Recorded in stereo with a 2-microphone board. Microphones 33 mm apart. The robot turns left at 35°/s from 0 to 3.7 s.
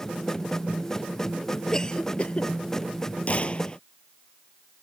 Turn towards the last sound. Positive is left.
turn(degrees=30)  # may be behind; listen again after turning